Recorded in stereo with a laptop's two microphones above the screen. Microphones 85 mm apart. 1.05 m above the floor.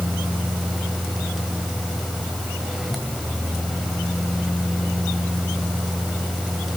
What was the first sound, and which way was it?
A fan, centre (ahead or behind).